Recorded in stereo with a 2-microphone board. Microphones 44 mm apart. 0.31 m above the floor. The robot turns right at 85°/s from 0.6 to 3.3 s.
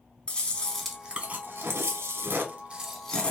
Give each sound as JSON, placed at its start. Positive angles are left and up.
{"t": 0.3, "sound": "chewing", "azimuth_deg": 155, "distance_m": 1.1}